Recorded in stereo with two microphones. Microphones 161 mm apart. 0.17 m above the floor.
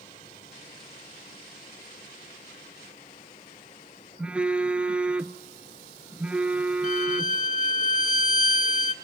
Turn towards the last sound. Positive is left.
turn(degrees=50)  # may be behind; listen again after turning